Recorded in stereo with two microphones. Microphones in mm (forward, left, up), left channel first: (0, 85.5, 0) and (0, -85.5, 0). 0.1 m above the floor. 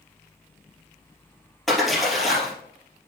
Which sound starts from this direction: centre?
A splash, at 1.7 s.